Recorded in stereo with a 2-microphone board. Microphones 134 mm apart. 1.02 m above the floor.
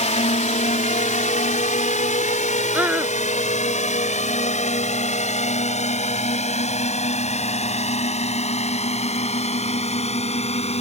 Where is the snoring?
No snoring in this recording.